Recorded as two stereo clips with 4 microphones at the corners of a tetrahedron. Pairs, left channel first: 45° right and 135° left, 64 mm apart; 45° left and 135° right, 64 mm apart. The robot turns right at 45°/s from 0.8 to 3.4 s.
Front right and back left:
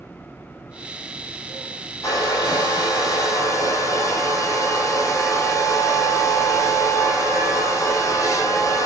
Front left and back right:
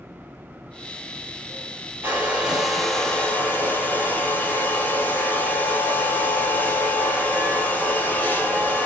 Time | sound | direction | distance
2.0 | a hair dryer | 80° right | 4.5 m